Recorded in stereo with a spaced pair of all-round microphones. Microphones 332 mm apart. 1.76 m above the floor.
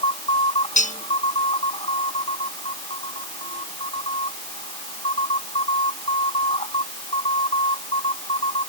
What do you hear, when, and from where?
0.8 s cutlery clinking: 20° left (ahead or behind)